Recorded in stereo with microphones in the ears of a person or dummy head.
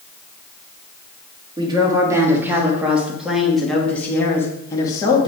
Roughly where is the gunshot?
No gunshot in this recording.